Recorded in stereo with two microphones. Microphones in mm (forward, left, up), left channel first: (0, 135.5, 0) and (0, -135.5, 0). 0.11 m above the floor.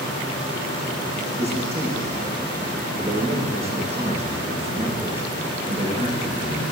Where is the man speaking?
20° right (ahead or behind), 6.5 m.